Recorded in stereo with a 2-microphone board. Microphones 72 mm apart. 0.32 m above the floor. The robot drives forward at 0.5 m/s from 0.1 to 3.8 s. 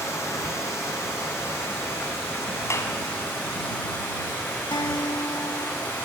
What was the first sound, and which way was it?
Running water, 40° left (ahead or behind).